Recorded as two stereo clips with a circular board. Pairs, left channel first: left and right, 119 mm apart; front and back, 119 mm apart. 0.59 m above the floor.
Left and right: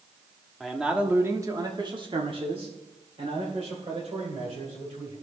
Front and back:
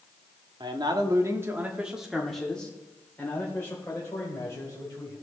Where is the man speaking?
Straight behind, 1.4 m; by 5.2 s 65° right, 4 m.